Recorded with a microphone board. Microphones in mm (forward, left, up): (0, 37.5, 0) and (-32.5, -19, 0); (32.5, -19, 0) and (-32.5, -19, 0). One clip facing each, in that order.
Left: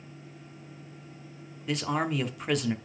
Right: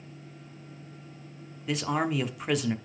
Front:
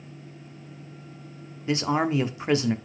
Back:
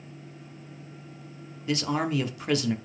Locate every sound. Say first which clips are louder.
1.7 s a man speaking: right 1 dB, front 3 dB; 30° right, 0.7 m